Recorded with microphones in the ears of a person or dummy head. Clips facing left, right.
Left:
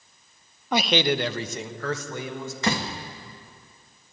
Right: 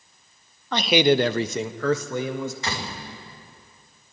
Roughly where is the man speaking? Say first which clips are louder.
Right 4 dB; centre.